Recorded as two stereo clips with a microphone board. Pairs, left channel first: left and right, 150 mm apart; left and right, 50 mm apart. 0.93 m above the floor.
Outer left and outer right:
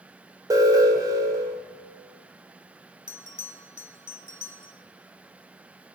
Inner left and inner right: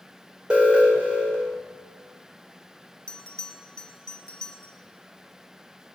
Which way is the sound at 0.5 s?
20° right (ahead or behind).